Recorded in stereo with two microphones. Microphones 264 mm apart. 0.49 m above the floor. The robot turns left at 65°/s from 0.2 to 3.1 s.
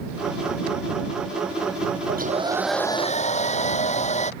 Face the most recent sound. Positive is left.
turn(degrees=155)